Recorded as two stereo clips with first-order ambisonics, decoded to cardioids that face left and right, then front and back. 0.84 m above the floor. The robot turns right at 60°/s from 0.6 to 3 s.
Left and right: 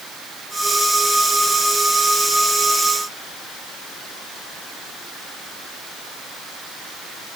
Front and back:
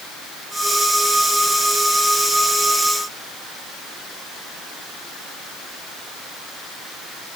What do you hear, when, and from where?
Only background noise.